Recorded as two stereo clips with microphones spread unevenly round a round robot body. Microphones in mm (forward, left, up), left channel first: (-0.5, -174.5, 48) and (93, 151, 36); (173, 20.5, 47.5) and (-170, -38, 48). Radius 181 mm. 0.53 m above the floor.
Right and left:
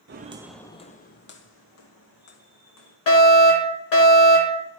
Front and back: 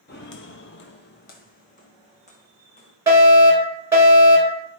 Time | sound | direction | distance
0.1 | footsteps | 45° left | 0.6 m
3.1 | a fire alarm | 90° right | 4 m